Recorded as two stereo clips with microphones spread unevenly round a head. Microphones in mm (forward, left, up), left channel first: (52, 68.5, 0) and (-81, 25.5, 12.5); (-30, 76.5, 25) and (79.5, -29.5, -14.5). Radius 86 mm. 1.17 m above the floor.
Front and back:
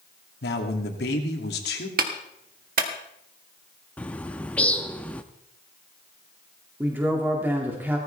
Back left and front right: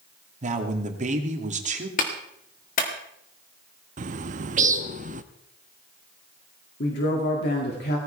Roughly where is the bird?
Ahead right.